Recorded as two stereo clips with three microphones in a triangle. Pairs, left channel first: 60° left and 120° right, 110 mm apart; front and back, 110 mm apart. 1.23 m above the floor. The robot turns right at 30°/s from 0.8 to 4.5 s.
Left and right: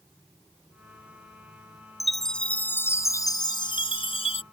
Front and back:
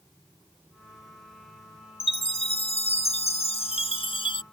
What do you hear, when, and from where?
2.0 s a chime: 30° right; by 4.4 s 40° left